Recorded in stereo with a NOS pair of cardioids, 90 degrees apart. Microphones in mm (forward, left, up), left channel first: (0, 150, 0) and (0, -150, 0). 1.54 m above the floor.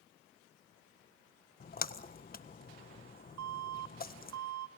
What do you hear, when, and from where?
1.6 s a splash: 30° left, 1.4 m
3.4 s an alarm: 60° right, 2 m